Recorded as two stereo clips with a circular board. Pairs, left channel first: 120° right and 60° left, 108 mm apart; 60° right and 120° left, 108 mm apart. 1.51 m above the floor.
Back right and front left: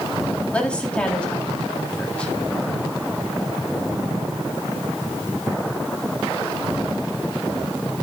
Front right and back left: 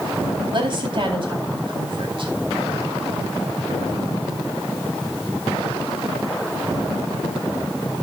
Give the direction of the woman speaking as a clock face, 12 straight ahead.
7 o'clock.